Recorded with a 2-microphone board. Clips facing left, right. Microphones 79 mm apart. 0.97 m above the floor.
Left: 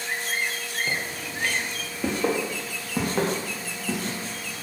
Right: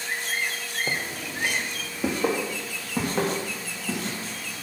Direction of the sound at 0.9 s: 35° right (ahead or behind).